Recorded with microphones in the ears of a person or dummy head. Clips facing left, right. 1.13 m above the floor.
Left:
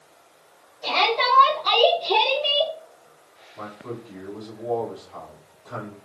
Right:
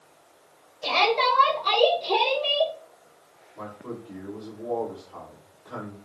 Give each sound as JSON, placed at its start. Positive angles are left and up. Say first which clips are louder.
{"t": 0.8, "sound": "a shout", "louder": "even", "side_deg": -40, "distance_m": 0.9}
{"t": 3.5, "sound": "a man speaking", "louder": "left 2 dB", "side_deg": -10, "distance_m": 2.0}